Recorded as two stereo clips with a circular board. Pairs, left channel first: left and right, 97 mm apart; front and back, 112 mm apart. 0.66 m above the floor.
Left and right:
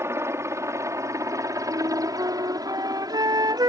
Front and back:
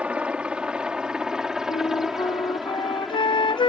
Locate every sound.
0.0 s a helicopter: 110° right; by 3.7 s 90° right
1.7 s a flute: 40° right